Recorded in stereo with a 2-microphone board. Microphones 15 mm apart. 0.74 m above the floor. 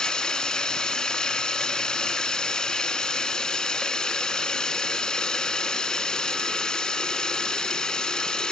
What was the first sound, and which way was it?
Running water, 70° left (ahead or behind).